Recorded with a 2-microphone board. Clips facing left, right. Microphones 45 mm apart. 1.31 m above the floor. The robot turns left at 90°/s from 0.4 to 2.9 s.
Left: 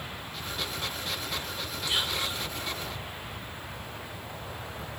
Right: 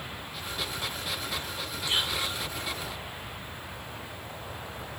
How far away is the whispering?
About 1.0 m.